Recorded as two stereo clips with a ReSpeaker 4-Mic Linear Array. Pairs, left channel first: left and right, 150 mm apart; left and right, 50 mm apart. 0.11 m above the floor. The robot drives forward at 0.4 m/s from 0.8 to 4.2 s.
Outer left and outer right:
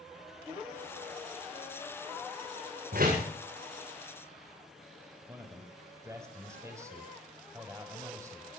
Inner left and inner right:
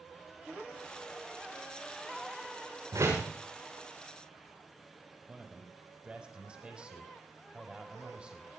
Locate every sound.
2.9 s a door slam: 80° right, 8.5 m; by 3.3 s 85° right, 8.5 m
5.3 s a man speaking: 20° right (ahead or behind), 5 m